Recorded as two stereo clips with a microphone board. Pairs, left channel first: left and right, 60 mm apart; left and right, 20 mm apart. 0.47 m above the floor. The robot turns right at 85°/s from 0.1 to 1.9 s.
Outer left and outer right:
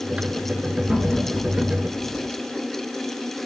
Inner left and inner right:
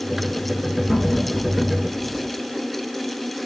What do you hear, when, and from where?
0.9 s laughter: 20° right (ahead or behind), 4 m; by 2.3 s 65° left (ahead or behind), 4 m